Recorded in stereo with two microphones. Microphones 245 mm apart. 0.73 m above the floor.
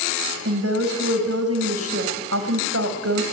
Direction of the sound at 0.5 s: 75° right (ahead or behind).